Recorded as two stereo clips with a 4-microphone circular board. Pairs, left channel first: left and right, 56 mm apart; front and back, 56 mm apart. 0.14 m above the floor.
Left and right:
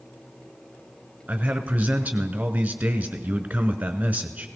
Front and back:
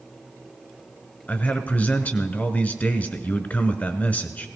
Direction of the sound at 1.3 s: 40° right.